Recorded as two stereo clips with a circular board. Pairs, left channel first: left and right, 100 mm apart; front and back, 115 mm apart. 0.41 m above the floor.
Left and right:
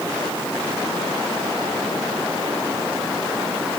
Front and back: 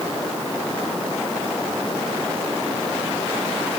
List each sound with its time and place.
Only background noise.